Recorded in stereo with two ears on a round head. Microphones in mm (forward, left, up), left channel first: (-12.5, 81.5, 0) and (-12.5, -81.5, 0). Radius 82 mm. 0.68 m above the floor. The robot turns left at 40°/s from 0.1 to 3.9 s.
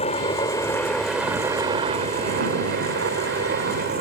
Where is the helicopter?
40° left; by 4.0 s 115° right.